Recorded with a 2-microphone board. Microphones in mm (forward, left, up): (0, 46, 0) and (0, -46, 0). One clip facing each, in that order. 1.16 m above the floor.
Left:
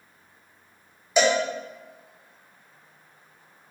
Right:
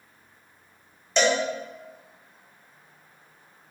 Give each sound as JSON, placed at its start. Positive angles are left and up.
{"t": 1.2, "sound": "a cowbell", "side_deg": 5, "distance_m": 0.5}